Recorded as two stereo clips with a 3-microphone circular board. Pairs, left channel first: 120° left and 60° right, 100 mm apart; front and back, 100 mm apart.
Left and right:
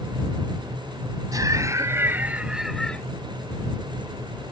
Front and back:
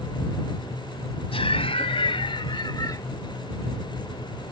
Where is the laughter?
10° right; by 3.0 s 45° left.